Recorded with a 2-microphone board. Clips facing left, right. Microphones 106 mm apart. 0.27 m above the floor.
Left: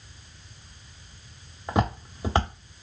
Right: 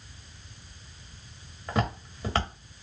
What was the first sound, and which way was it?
Footsteps, 20° left (ahead or behind).